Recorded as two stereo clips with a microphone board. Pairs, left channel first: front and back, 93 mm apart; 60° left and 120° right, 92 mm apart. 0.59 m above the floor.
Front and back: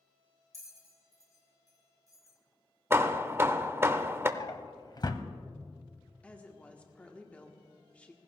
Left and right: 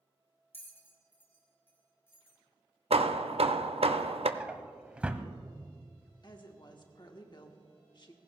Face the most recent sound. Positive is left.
turn(degrees=70)